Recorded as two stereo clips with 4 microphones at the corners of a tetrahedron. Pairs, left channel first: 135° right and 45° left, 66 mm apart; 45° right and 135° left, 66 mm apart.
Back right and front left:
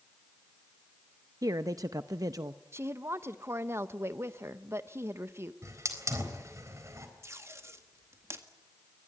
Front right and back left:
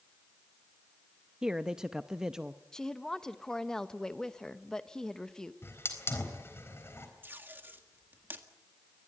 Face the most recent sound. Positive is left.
turn(degrees=80)